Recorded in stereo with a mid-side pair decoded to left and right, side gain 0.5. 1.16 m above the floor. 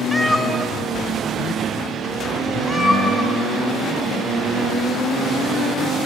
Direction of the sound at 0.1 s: Straight ahead.